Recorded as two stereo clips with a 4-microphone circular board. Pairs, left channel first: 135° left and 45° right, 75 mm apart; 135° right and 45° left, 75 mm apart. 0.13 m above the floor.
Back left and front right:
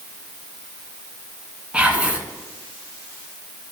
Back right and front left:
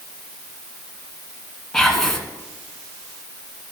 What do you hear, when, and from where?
1.7 s whispering: 60° right, 1.0 m